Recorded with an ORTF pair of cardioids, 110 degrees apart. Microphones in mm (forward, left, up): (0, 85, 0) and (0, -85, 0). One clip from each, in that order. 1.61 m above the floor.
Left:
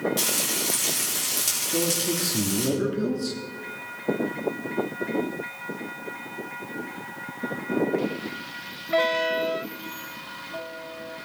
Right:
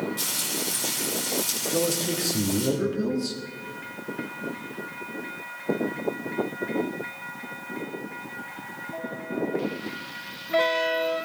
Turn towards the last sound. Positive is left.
turn(degrees=5)